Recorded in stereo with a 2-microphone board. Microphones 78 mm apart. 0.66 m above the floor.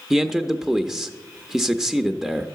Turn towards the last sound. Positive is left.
turn(degrees=-5)  # may be behind; listen again after turning